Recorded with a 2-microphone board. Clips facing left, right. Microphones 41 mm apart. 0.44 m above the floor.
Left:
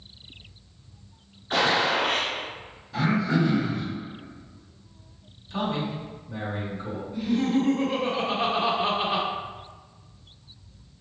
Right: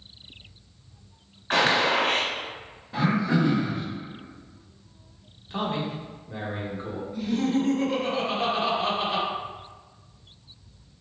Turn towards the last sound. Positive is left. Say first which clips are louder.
# left 1 dB
turn(degrees=15)  # may be behind; listen again after turning